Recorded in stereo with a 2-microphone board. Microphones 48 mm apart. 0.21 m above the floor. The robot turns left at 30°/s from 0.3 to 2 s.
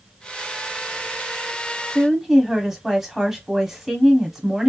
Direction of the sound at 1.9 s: 5° right (ahead or behind).